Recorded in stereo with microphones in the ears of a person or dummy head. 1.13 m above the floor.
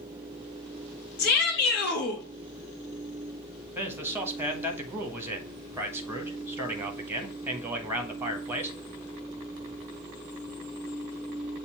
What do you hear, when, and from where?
1.2 s a shout: 45° left (ahead or behind), 1.2 m
3.8 s a man speaking: 10° right (ahead or behind), 1.3 m